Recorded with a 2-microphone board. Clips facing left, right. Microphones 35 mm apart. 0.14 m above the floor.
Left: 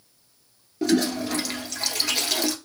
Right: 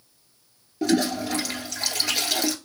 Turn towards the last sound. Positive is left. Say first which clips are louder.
# even
turn(degrees=5)  # may be behind; listen again after turning